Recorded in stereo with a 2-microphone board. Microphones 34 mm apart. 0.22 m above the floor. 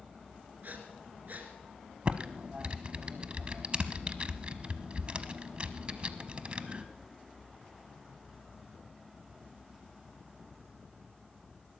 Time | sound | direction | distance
0.6 | breathing | 60° right (ahead or behind) | 2.5 m
2.0 | typing on a keyboard | 35° right (ahead or behind) | 0.8 m